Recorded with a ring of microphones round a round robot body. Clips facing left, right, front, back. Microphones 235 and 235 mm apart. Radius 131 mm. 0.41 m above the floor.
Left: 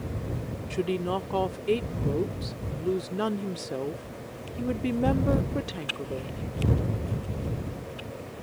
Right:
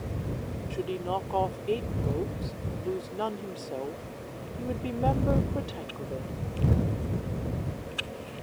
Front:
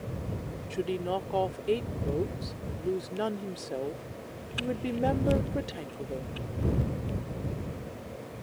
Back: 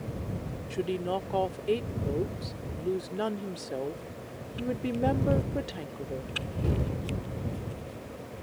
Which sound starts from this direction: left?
A woman speaking, at 0.7 s.